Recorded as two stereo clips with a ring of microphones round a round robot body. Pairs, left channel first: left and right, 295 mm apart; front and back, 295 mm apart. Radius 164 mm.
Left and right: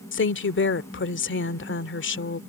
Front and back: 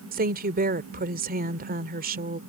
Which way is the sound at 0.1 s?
125° left.